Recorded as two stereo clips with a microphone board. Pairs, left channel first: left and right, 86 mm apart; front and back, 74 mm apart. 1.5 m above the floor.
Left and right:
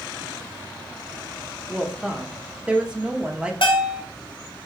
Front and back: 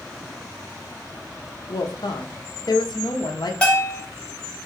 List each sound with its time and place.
1.7 s a woman speaking: 10° right, 0.7 m
3.6 s a bell: 75° left, 1.0 m